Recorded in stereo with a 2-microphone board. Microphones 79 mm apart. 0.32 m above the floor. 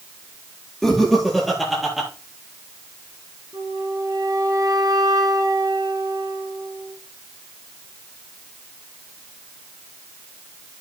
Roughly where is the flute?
Right.